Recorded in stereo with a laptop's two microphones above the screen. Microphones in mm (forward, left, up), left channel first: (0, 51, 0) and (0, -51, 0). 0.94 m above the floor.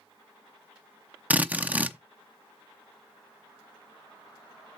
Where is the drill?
15° right (ahead or behind), 0.7 m.